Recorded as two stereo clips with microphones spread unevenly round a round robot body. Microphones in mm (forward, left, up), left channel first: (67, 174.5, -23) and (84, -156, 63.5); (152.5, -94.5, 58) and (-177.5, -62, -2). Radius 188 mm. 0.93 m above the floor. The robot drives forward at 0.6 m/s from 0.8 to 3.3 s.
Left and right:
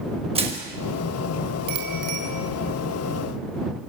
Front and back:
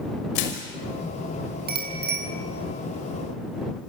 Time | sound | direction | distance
0.3 | crushing | 15° right | 5.5 m
1.7 | a bicycle bell | 125° right | 5.5 m